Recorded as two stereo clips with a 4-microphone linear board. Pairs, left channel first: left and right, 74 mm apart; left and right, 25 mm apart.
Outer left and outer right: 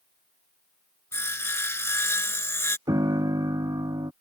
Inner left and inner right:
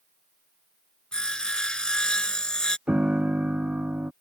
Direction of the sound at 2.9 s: 60° right (ahead or behind).